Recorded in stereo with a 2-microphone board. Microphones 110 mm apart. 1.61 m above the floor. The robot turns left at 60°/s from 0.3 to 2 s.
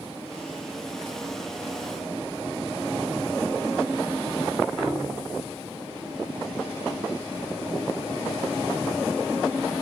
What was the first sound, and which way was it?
A piano, 5° left (ahead or behind).